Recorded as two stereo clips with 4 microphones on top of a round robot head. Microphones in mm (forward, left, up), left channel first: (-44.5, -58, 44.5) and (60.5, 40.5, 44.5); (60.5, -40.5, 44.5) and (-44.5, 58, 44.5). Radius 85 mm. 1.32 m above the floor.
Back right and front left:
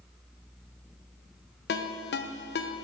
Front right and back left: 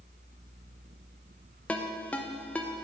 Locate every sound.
1.7 s a ringtone: 125° right, 0.5 m